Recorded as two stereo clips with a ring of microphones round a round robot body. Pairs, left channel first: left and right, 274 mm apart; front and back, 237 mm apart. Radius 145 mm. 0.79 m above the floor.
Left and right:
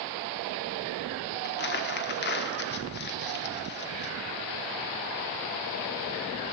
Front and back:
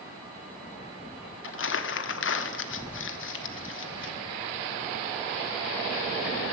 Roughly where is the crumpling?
Ahead left.